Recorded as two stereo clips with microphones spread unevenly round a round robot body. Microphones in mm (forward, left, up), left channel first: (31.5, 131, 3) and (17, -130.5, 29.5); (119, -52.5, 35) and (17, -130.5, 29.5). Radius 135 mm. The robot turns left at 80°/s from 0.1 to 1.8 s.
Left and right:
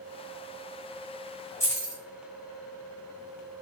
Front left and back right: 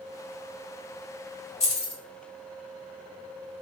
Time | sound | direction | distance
1.6 | keys jangling | 15° left | 1.3 m